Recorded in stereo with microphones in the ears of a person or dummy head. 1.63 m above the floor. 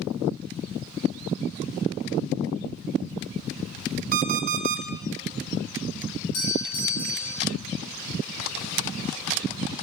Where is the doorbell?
80° left, 8 m.